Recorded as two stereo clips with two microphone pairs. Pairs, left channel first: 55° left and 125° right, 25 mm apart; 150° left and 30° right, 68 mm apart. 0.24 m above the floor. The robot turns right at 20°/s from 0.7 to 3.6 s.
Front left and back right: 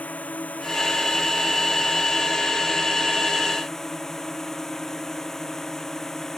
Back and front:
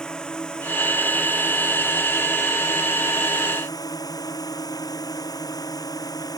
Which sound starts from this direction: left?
A drone, at 0.0 s.